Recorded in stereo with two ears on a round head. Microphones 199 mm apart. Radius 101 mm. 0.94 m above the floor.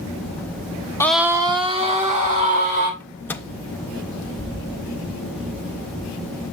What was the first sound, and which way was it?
A scream, 10° left (ahead or behind).